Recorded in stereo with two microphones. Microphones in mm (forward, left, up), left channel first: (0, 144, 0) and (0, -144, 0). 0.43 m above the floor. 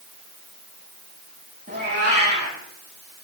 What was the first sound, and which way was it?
A cat meowing, 35° right (ahead or behind).